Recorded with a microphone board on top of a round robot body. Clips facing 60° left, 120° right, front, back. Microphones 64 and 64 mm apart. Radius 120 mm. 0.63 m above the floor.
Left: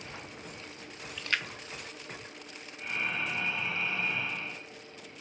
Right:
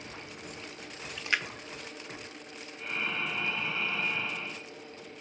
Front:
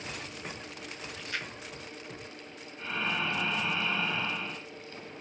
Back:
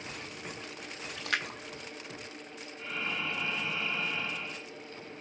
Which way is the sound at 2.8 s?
20° right.